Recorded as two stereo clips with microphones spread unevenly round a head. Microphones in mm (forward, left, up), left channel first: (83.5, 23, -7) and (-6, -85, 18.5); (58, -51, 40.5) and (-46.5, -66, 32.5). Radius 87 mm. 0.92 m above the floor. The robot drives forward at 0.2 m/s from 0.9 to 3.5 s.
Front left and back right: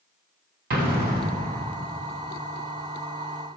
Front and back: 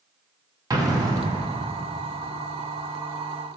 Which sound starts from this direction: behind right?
An explosion, at 0.7 s.